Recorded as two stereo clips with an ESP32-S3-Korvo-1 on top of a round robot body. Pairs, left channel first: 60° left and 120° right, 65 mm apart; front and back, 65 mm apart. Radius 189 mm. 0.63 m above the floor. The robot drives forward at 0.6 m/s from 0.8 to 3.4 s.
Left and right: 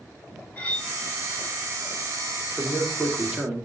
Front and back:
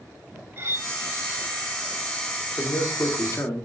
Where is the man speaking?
35° right, 2.5 m; by 3.7 s 45° right, 2 m.